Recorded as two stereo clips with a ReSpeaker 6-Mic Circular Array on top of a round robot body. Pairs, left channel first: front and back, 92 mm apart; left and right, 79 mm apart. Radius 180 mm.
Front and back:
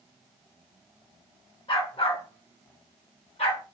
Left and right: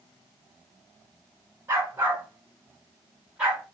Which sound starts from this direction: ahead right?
A dog barking, at 1.7 s.